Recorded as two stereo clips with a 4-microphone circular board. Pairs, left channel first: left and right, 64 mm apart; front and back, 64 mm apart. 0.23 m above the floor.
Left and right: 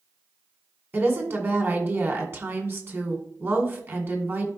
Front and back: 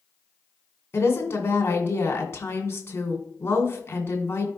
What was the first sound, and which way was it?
A woman speaking, 45° right.